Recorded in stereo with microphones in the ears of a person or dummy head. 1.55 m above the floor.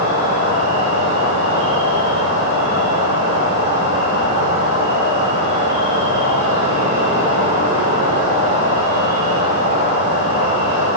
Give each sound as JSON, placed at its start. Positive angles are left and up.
{"t": 0.0, "sound": "an insect", "side_deg": 80, "distance_m": 3.0}